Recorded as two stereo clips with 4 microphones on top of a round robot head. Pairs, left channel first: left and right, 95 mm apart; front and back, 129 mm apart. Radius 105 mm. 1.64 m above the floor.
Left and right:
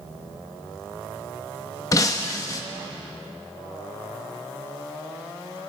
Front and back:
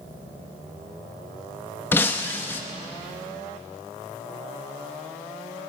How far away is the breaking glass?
About 1.0 m.